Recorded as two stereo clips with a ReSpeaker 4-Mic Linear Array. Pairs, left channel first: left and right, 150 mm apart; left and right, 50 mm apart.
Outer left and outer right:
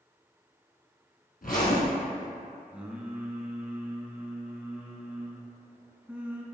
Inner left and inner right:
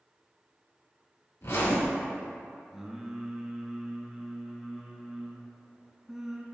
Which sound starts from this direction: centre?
Singing, at 2.7 s.